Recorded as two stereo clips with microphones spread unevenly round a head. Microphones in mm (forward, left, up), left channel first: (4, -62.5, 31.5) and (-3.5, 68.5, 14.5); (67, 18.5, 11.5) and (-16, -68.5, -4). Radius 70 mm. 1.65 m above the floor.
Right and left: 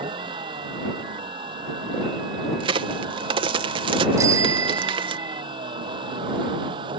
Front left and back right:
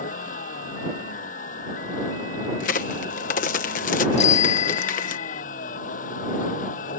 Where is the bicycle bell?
25° left.